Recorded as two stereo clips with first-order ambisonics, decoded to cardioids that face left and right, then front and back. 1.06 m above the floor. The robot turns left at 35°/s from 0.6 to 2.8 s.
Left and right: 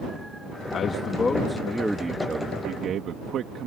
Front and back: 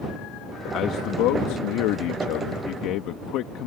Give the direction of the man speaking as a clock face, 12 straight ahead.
11 o'clock.